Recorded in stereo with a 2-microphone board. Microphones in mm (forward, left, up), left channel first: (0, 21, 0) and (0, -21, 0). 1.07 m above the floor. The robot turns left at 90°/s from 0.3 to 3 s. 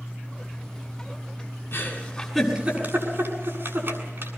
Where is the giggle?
55° left (ahead or behind), 7.5 m; by 4.3 s 60° right (ahead or behind), 7.5 m.